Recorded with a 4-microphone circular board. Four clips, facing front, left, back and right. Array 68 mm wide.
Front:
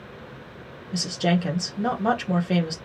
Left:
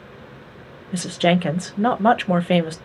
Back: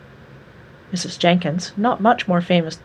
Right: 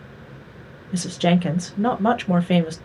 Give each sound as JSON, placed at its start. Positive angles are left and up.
{"t": 0.9, "sound": "a woman speaking", "azimuth_deg": 150, "distance_m": 0.6}